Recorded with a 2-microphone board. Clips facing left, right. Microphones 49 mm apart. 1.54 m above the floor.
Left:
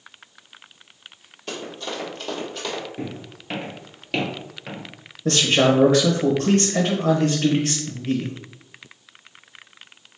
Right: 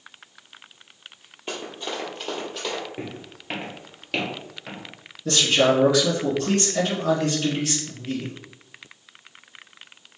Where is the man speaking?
45° left (ahead or behind), 1.2 m.